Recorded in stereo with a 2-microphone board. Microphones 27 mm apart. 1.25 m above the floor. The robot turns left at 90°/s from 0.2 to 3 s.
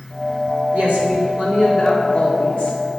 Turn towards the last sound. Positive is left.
turn(degrees=75)